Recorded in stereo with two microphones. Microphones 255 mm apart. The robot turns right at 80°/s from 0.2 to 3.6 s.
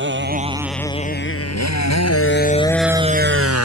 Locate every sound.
0.0 s a motorcycle: 45° right (ahead or behind); by 3.7 s 70° right (ahead or behind)